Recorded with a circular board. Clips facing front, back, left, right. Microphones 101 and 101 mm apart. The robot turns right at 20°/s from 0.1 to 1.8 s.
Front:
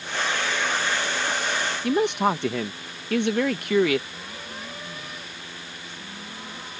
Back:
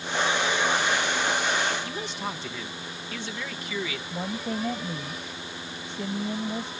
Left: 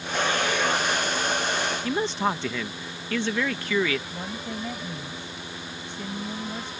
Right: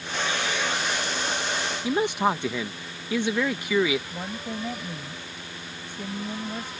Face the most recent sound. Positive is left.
turn(degrees=-170)